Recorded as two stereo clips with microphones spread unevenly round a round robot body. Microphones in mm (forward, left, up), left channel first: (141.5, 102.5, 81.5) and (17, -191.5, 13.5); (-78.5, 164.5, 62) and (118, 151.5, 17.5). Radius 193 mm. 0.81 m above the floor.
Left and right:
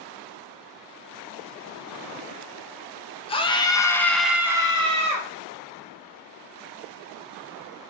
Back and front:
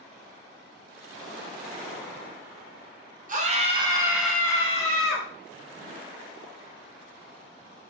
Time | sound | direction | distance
3.3 | a scream | 15° right | 1.0 m